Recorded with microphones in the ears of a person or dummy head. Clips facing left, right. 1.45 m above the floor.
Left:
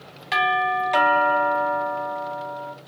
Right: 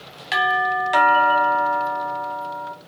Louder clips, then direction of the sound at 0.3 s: Even; 5° right (ahead or behind).